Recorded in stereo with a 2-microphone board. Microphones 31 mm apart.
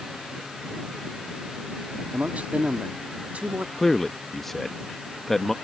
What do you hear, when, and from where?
2.1 s a man speaking: 45° right (ahead or behind)
3.8 s a man speaking: 10° left (ahead or behind)